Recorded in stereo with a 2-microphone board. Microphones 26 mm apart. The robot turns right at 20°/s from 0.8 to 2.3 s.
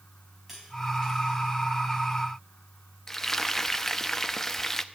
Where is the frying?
10° left (ahead or behind), 0.7 m.